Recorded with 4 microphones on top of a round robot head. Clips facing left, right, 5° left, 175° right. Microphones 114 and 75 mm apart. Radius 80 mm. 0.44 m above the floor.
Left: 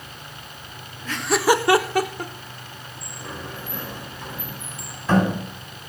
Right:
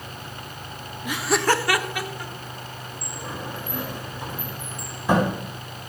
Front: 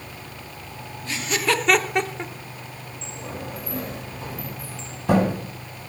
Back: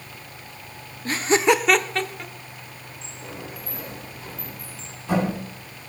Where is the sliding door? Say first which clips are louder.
Right 2 dB, front 4 dB; 15° right, 4.5 m.